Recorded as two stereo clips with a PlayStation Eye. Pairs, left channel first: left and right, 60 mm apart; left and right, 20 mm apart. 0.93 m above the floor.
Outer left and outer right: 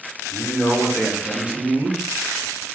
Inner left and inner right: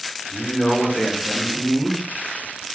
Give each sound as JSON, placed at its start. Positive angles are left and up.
{"t": 0.3, "sound": "a man speaking", "side_deg": 15, "distance_m": 1.1}